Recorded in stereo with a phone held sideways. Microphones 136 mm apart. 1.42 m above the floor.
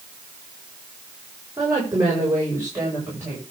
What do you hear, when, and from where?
1.6 s a woman speaking: 25° right (ahead or behind), 6.5 m